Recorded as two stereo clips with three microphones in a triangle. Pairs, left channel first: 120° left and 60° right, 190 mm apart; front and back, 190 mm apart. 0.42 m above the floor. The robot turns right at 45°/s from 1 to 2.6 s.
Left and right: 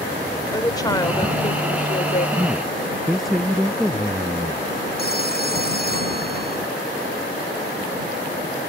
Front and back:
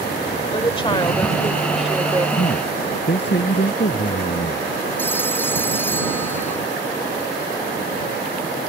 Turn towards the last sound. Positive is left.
turn(degrees=80)